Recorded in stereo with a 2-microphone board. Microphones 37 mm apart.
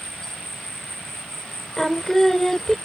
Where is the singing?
10° left (ahead or behind).